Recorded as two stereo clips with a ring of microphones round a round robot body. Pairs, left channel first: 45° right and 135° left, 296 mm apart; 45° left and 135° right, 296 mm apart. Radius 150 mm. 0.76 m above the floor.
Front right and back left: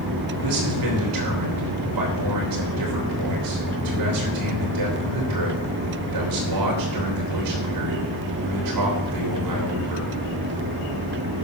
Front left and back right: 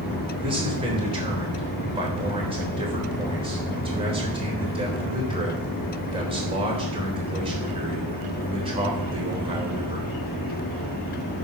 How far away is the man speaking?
About 3.5 m.